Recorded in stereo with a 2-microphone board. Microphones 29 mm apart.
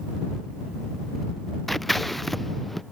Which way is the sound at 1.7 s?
5° left (ahead or behind).